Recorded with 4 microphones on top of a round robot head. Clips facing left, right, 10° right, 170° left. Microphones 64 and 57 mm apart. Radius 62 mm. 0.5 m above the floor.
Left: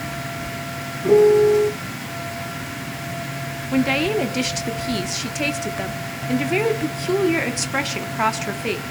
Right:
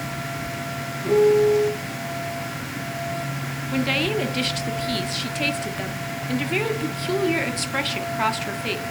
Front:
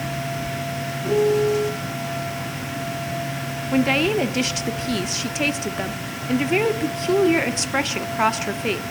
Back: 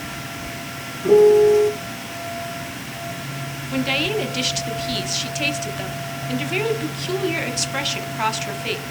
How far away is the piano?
About 1.0 m.